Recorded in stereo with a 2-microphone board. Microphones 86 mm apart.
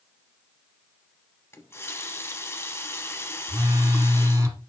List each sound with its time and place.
1.5 s a running tap: 30° left (ahead or behind), 0.9 m
3.5 s a phone buzzing: 35° right (ahead or behind), 2 m